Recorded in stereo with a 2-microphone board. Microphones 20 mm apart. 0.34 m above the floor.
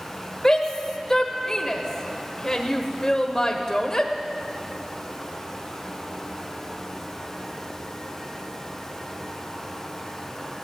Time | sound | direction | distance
0.4 | a shout | 25° left (ahead or behind) | 1.1 m